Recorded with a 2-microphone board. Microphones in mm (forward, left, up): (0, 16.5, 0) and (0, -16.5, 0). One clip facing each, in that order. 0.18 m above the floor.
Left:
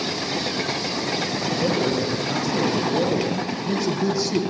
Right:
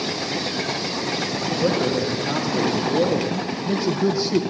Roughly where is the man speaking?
Centre.